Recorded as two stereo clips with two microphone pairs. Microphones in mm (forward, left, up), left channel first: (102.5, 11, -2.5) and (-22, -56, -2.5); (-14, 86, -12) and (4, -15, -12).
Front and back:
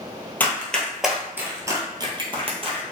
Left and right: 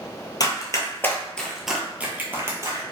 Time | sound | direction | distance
0.4 | running footsteps | 95° left | 1.2 m